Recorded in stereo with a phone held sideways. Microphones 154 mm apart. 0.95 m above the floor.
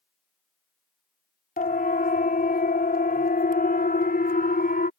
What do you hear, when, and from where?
1.6 s a siren: 70° left (ahead or behind)